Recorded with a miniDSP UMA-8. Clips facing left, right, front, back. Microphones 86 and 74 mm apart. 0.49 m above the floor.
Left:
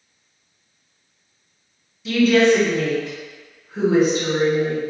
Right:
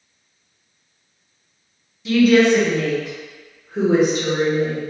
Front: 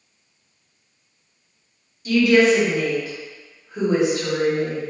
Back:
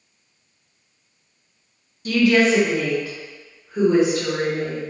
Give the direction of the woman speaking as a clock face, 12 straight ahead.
6 o'clock.